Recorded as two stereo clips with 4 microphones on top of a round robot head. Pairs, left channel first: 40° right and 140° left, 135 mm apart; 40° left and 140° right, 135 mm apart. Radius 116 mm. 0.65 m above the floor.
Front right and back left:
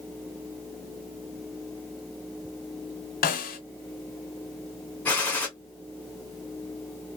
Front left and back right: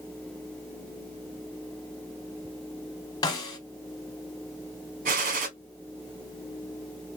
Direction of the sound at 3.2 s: 20° right.